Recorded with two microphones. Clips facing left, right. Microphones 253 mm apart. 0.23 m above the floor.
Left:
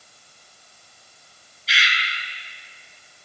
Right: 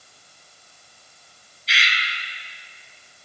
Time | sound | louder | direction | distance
1.7 | a bird | left 1 dB | centre (ahead or behind) | 1.2 m